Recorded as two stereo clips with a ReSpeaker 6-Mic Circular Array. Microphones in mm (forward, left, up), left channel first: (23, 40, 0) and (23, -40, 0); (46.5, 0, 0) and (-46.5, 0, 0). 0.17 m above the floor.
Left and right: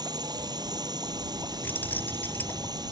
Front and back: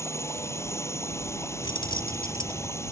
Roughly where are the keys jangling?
Ahead left.